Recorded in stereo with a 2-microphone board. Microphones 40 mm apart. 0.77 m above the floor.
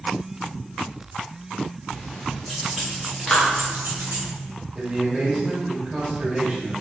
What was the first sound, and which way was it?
Keys jangling, 15° left (ahead or behind).